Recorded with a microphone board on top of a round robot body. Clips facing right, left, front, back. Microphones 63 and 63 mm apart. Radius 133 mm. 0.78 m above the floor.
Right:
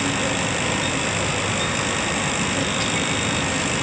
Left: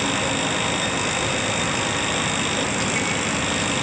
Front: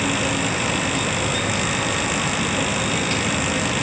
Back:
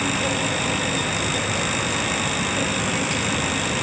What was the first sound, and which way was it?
Only background noise.